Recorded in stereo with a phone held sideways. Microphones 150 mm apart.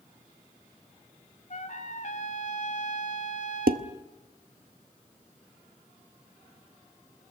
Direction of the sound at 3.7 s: 75° right (ahead or behind).